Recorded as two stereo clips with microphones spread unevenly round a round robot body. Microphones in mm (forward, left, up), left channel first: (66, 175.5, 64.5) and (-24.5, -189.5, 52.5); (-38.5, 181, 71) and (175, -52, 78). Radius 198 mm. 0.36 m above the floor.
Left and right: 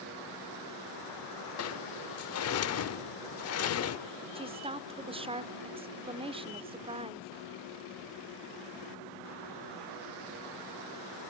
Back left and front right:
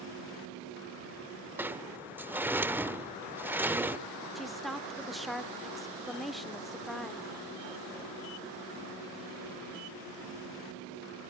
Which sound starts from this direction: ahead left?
A sliding door, at 1.6 s.